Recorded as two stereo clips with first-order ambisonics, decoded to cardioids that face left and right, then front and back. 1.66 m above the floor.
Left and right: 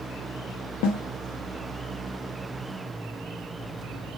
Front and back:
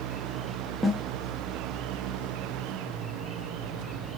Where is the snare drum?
95° left, 0.5 m.